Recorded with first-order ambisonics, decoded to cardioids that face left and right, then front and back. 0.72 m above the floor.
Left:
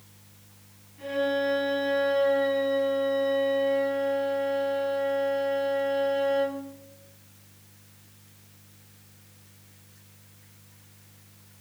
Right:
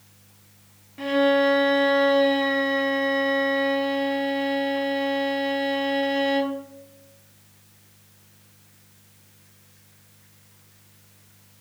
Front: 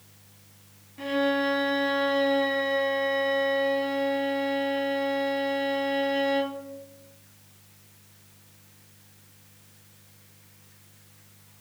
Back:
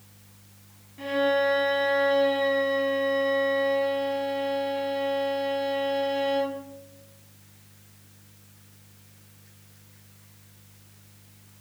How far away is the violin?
About 0.8 m.